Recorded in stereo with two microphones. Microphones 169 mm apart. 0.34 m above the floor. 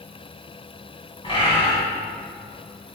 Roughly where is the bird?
Left.